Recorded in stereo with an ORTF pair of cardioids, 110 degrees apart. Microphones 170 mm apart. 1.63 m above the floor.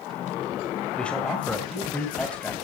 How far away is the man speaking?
About 6.5 m.